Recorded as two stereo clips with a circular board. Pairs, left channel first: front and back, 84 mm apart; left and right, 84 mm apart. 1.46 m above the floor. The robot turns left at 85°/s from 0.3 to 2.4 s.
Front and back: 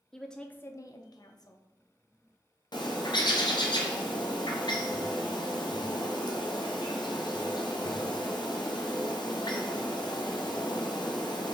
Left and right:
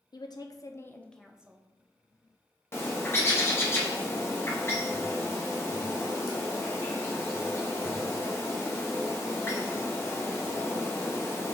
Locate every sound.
0.1 s a woman speaking: 85° left, 0.6 m; by 1.6 s 25° right, 0.6 m
2.7 s a bird: 30° left, 0.7 m